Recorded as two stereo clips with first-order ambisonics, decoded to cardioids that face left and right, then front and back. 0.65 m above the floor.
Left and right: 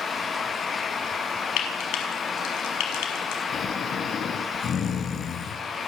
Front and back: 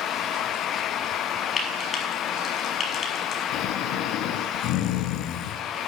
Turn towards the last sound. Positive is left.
turn(degrees=30)